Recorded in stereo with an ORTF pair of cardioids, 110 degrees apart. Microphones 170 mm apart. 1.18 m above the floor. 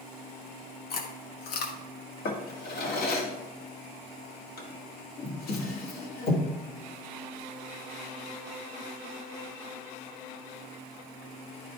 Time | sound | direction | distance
0.9 | chewing | 60° left | 1.5 m
2.2 | a drawer | 60° left | 1.7 m